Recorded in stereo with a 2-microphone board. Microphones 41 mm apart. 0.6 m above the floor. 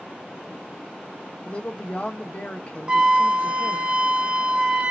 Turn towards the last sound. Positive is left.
turn(degrees=-30)  # may be behind; listen again after turning